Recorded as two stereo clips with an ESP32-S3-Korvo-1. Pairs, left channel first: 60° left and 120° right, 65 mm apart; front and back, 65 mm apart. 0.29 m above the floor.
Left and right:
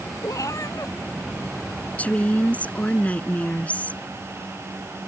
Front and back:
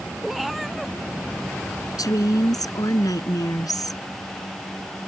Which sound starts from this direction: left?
A cat meowing, at 0.2 s.